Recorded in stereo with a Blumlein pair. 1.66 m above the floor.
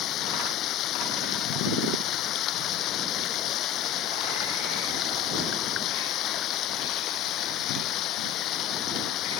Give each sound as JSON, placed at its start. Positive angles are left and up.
{"t": 0.0, "sound": "running water", "azimuth_deg": 35}